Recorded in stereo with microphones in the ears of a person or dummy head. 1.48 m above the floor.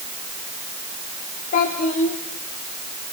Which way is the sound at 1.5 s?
45° left (ahead or behind).